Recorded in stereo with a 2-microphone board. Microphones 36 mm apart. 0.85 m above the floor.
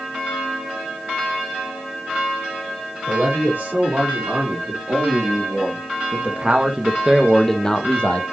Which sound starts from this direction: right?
A man speaking, at 3.1 s.